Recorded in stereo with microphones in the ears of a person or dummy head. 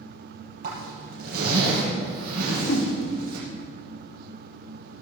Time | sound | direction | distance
0.6 | a zipper | 55° right (ahead or behind) | 5.5 m
2.4 | a whoosh | 60° left (ahead or behind) | 1.5 m